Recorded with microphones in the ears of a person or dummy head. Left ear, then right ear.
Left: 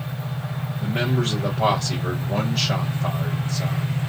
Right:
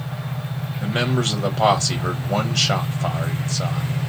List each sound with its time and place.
0.8 s a man speaking: 55° right (ahead or behind), 1.1 m